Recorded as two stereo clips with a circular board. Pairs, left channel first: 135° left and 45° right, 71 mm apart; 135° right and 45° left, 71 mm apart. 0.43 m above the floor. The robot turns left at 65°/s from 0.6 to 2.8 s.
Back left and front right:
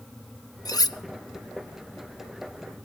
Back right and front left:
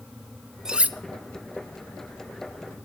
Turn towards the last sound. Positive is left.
turn(degrees=-10)